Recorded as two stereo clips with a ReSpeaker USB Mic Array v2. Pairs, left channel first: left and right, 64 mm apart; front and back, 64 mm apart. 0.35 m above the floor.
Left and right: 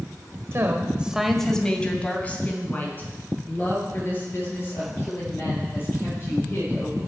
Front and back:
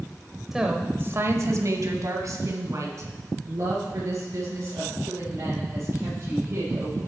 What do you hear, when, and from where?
0.5 s a woman speaking: 95° right, 1.2 m; by 7.0 s 140° left, 9.5 m